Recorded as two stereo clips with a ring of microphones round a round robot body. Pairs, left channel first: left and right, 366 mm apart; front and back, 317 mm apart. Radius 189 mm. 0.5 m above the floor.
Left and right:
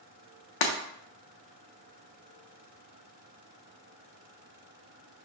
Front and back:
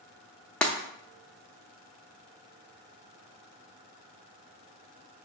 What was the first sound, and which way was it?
Breaking glass, 85° left.